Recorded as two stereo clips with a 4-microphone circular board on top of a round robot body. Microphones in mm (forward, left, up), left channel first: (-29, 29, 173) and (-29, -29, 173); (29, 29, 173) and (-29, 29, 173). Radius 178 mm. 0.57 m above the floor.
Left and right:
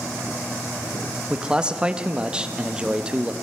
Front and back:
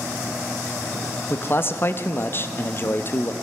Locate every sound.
1.3 s a man speaking: 25° right, 0.8 m